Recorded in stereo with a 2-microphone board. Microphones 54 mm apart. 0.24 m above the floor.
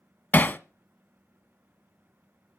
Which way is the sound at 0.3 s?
35° left (ahead or behind).